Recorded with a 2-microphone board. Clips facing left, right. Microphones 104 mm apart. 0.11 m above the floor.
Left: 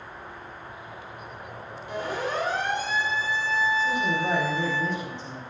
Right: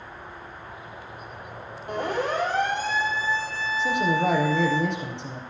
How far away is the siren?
About 4.5 m.